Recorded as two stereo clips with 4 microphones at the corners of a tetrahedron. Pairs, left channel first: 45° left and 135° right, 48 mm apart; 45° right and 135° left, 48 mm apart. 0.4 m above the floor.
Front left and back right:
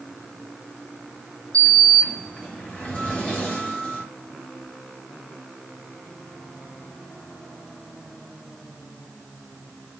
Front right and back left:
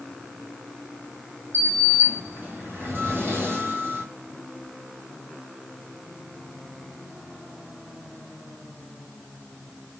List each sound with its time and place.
1.5 s a sliding door: 110° left, 1.0 m